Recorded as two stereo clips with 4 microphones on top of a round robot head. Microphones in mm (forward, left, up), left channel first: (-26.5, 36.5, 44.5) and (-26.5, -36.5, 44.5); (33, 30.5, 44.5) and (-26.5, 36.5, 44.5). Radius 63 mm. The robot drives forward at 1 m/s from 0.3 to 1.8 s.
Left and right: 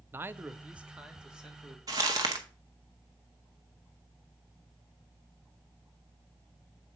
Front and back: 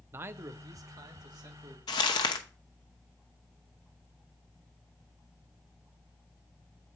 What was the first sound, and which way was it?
A man speaking, 145° right.